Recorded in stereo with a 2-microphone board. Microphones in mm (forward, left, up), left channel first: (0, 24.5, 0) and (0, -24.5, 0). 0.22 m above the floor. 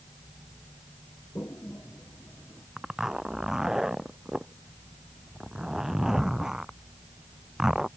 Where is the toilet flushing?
50° left (ahead or behind).